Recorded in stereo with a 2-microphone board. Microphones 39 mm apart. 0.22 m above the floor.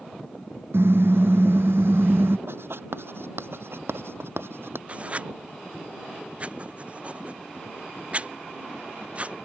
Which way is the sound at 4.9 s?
30° right (ahead or behind).